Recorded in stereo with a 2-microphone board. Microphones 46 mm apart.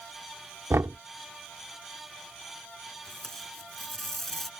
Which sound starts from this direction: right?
Knocking, at 0.7 s.